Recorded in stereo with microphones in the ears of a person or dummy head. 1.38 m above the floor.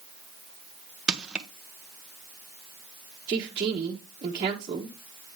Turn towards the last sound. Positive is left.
turn(degrees=-35)  # may be behind; listen again after turning